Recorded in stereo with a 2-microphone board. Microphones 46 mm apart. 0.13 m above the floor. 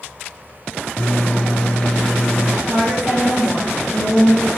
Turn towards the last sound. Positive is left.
turn(degrees=-20)  # may be behind; listen again after turning